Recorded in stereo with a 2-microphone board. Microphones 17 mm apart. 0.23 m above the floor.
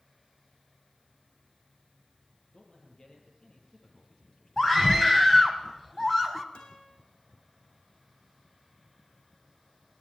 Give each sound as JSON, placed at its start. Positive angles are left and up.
{"t": 2.5, "sound": "a man speaking", "side_deg": 45, "distance_m": 7.5}
{"t": 4.6, "sound": "a scream", "side_deg": 10, "distance_m": 1.5}
{"t": 6.5, "sound": "a guitar", "side_deg": 70, "distance_m": 5.0}